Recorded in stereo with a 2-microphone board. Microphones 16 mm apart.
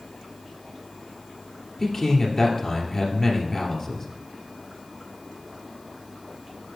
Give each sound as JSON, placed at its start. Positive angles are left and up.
{"t": 1.8, "sound": "a man speaking", "side_deg": 15, "distance_m": 2.5}